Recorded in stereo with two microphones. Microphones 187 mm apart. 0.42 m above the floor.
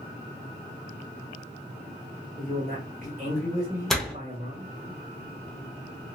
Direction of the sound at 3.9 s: Centre (ahead or behind).